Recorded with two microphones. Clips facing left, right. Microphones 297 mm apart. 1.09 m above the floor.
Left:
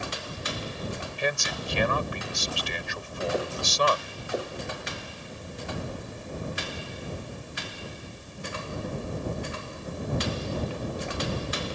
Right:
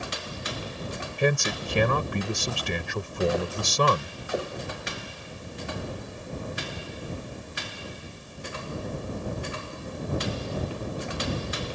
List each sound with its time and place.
1.2 s a man speaking: 55° right (ahead or behind)